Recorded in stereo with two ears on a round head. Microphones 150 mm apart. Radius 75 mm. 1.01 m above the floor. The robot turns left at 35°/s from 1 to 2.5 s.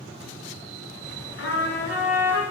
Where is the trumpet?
95° left, 2.5 m; by 2.4 s 60° left, 2.5 m.